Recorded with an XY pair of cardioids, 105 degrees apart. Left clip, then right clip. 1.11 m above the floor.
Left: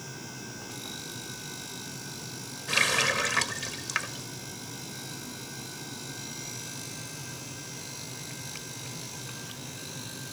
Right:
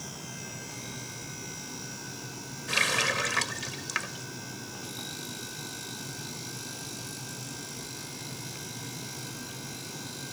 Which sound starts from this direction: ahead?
A running tap, at 2.7 s.